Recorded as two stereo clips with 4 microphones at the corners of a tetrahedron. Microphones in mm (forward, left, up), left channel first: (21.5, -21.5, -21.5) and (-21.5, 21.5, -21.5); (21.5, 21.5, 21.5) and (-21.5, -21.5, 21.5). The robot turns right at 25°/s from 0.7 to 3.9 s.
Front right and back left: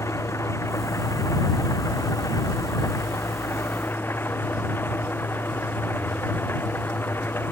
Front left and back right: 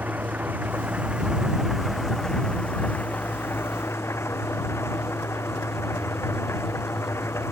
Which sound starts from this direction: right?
An engine running, at 0.0 s.